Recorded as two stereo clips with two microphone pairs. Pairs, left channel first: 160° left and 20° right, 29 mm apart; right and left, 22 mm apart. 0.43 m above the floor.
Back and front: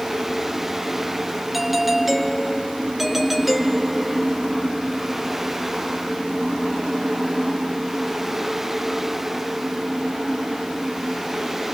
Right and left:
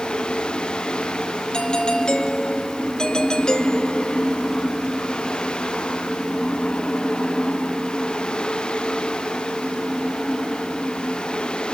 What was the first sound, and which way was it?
A doorbell, 100° right.